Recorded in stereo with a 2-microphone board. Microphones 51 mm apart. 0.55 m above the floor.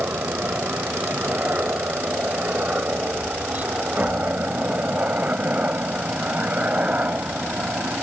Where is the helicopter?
35° right (ahead or behind); by 8.0 s 30° right (ahead or behind).